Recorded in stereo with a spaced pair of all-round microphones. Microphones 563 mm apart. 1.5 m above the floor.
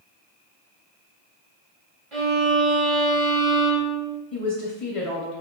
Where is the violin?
60° right (ahead or behind), 1.0 m.